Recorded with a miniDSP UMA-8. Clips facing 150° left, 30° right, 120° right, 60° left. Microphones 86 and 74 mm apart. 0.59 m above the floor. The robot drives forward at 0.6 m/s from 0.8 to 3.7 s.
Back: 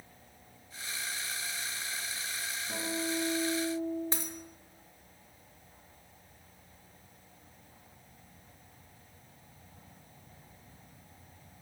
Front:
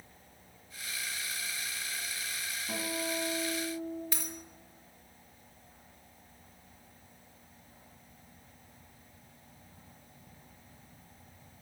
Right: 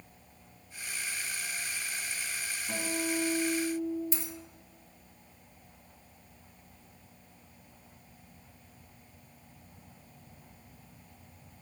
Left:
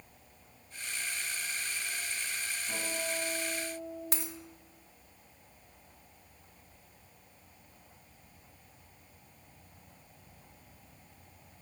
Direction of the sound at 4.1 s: 90° left.